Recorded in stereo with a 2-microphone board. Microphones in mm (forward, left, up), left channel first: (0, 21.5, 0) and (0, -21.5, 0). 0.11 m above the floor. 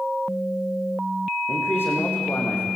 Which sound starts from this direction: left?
A man speaking, at 1.5 s.